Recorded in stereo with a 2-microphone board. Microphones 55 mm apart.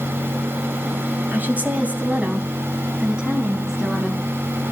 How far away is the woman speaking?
About 3 m.